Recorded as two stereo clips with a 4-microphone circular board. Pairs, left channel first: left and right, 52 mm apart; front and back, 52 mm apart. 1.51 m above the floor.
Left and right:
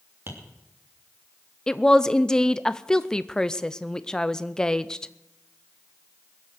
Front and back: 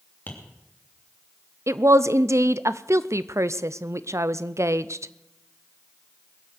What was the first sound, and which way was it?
Tapping, 50° right.